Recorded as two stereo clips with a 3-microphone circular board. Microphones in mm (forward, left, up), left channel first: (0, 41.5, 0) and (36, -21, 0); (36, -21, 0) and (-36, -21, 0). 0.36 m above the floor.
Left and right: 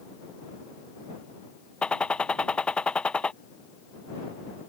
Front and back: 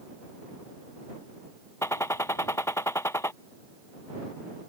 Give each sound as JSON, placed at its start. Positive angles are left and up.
{"t": 1.8, "sound": "a gunshot", "azimuth_deg": 45}